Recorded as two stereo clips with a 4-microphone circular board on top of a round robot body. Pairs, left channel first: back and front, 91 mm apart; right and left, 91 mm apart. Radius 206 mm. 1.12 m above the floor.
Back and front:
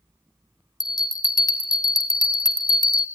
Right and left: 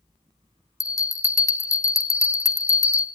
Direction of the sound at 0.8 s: 140° right.